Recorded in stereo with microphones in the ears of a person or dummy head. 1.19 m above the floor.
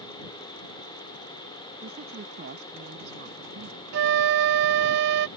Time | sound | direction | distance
1.8 | a woman speaking | 60° right (ahead or behind) | ?
3.9 | a flute | 60° right (ahead or behind) | ?